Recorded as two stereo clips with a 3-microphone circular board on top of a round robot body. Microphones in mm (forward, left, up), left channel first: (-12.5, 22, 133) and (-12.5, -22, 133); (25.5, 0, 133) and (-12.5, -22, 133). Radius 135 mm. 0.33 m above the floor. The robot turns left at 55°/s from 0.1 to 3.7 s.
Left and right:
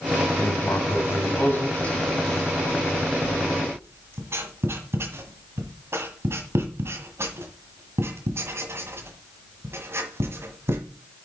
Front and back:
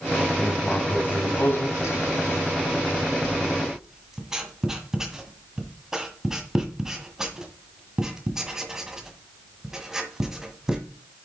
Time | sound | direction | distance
0.4 | writing | 110° left | 1.8 m